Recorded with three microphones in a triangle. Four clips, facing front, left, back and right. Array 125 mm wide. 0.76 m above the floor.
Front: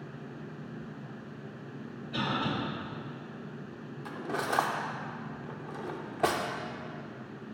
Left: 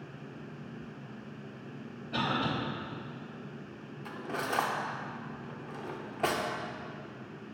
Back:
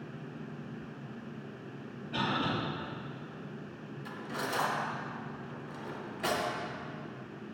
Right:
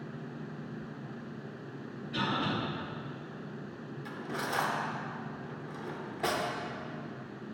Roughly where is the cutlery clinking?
Ahead.